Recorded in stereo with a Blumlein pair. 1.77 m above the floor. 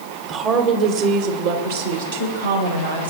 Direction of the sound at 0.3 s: 25° right.